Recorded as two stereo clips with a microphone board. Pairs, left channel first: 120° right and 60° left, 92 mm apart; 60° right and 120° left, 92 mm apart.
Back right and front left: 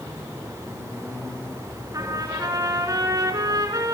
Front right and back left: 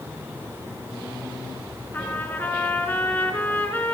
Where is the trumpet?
10° left, 3.5 m.